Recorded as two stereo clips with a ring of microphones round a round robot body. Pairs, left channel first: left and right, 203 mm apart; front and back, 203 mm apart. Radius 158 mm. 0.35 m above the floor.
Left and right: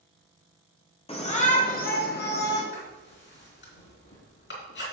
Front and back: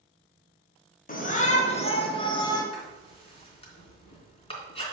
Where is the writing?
60° left, 3.5 m.